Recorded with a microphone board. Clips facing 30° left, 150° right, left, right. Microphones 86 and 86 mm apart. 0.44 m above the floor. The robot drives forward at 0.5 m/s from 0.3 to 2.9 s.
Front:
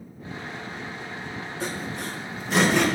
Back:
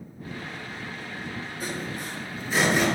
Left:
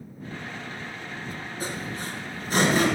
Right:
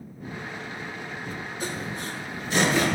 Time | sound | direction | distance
1.6 | sawing | 40° left | 5.5 m